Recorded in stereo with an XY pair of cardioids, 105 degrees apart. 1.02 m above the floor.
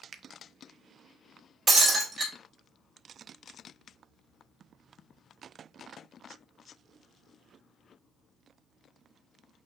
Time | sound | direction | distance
0.1 | a finger snap | 40° right | 0.5 m
1.7 | breaking glass | 35° right | 2.5 m